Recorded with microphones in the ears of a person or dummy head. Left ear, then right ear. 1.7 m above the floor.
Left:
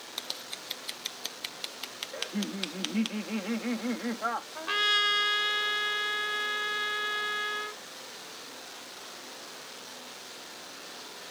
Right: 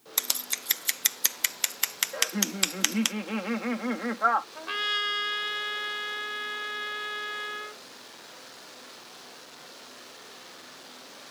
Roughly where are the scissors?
Right.